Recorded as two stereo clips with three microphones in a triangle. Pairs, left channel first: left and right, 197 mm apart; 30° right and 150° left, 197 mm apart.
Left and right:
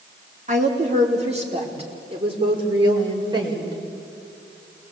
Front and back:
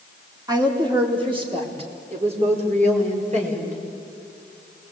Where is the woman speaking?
140° right, 4 m; by 3.8 s 160° right, 6 m.